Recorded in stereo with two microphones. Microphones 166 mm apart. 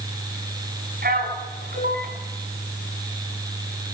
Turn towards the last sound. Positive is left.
turn(degrees=-70)  # may be behind; listen again after turning